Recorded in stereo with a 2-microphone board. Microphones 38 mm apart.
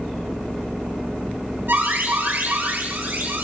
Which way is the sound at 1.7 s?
65° right (ahead or behind).